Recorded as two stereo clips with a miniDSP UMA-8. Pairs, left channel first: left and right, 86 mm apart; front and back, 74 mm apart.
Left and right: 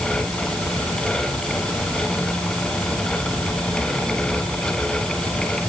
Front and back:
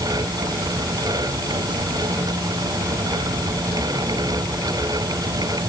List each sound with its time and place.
Only background noise.